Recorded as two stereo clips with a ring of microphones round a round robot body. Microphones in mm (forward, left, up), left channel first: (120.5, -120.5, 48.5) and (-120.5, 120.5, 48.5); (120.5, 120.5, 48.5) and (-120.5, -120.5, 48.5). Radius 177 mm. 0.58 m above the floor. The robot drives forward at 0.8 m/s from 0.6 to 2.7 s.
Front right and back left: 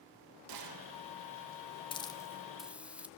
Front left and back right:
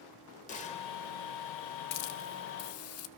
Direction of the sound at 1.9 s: 30° left.